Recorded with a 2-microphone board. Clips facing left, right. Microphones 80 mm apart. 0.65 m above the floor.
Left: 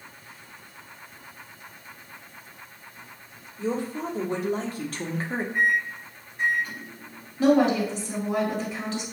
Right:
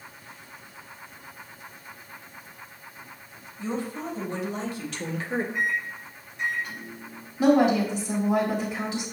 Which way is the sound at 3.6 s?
60° left (ahead or behind).